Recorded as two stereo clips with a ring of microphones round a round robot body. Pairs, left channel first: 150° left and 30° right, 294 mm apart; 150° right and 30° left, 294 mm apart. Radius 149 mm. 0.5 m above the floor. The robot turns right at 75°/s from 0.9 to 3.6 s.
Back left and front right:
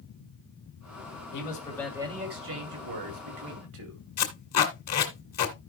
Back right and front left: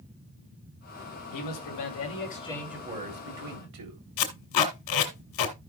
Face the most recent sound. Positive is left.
turn(degrees=-170)